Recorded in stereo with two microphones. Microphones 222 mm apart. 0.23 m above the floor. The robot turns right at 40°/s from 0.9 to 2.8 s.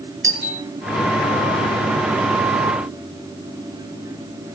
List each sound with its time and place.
0.2 s a doorbell: 60° right (ahead or behind), 5.5 m